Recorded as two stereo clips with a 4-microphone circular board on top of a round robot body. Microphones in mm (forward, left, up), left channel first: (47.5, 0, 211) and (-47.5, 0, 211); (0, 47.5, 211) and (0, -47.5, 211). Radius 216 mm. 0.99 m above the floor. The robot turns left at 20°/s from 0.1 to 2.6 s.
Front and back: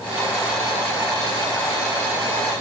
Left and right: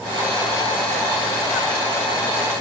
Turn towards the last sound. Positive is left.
No sound to turn to.